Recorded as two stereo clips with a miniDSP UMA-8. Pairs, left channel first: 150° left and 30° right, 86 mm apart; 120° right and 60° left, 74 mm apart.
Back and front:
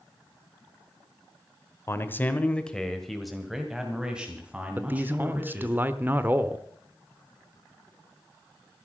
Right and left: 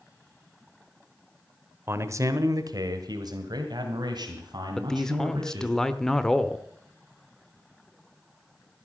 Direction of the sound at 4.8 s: 50° right.